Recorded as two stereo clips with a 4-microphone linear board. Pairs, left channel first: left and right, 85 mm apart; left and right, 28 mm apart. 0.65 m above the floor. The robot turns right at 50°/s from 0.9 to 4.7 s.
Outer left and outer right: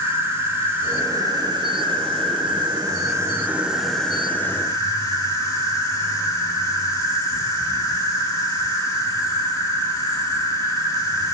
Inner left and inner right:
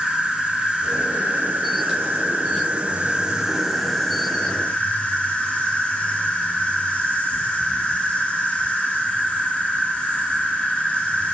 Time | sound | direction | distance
0.0 | an insect | 150° right | 1.3 m